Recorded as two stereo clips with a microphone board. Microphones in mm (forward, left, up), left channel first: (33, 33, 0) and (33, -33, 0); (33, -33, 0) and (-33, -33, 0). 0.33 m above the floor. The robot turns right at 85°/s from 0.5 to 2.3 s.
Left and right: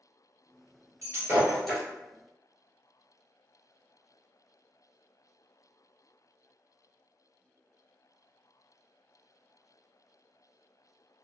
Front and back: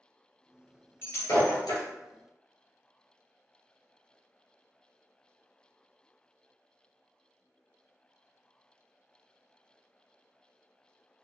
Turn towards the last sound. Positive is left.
turn(degrees=55)